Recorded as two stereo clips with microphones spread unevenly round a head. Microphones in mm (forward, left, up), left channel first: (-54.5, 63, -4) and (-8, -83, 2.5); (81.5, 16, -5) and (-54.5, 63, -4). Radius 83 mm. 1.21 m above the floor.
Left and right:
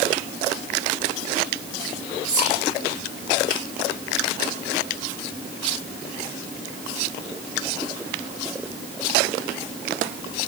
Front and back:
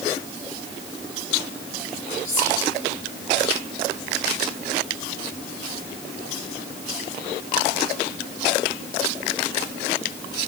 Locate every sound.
2.2 s whispering: 95° right, 5.5 m